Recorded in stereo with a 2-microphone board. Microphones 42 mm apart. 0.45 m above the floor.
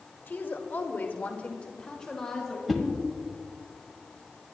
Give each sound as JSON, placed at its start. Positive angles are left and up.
{"t": 0.3, "sound": "a woman speaking", "side_deg": 50, "distance_m": 1.7}
{"t": 2.7, "sound": "a whoosh", "side_deg": 0, "distance_m": 1.4}